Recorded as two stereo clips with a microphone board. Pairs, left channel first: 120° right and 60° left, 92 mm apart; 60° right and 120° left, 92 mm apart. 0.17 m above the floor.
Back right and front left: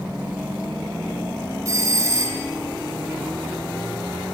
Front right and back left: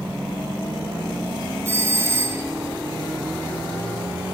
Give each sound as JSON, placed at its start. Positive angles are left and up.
{"t": 1.6, "sound": "a doorbell", "azimuth_deg": 80, "distance_m": 1.8}